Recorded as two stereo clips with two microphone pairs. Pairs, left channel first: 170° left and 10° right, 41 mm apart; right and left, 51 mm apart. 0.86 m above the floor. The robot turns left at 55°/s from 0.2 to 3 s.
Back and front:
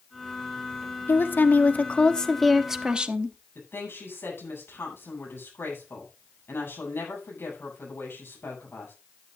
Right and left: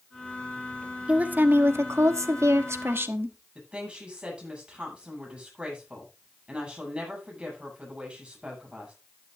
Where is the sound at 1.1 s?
155° left, 1.1 m; by 3.4 s 50° left, 1.1 m.